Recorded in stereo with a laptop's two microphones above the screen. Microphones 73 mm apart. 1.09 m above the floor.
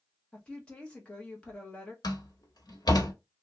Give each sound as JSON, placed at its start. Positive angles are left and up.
{"t": 0.3, "sound": "a woman speaking", "side_deg": 15, "distance_m": 1.0}
{"t": 2.0, "sound": "a door slam", "side_deg": 80, "distance_m": 1.2}